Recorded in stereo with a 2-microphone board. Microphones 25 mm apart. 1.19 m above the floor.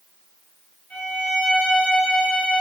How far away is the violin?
About 7.5 m.